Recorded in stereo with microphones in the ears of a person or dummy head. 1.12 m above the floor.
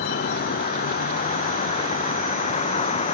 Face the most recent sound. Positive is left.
turn(degrees=35)  # may be behind; listen again after turning